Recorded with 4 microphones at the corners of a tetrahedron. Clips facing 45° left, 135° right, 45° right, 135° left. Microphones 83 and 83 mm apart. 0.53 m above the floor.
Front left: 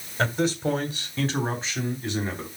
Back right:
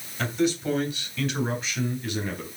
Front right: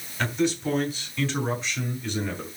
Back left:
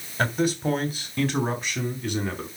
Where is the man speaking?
90° left, 3 m; by 2.5 s 105° left, 4 m.